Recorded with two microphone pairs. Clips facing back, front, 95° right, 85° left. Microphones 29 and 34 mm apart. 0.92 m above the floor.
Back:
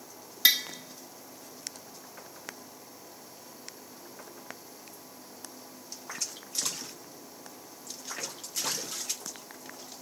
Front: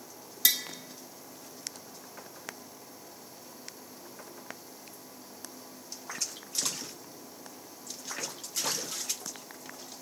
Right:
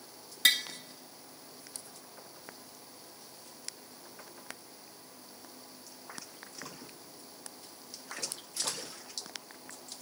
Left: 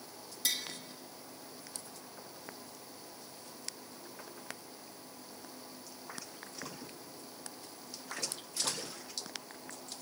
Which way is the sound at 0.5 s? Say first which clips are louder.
Back 5 dB, right 10 dB; 125° right.